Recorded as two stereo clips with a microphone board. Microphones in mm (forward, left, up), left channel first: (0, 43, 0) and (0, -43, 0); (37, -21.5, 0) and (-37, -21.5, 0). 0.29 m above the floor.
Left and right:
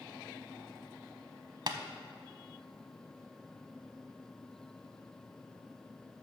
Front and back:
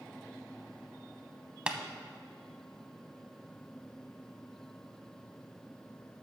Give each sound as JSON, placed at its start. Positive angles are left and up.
{"t": 1.7, "sound": "tapping", "azimuth_deg": -105, "distance_m": 0.9}